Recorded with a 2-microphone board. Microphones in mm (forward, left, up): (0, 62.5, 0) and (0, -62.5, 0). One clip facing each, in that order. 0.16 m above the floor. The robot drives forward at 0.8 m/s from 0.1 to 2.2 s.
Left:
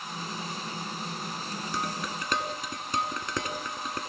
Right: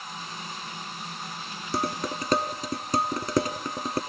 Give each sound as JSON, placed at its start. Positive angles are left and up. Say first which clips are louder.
{"t": 1.7, "sound": "dishes clattering", "louder": "right 6 dB", "side_deg": -40, "distance_m": 0.9}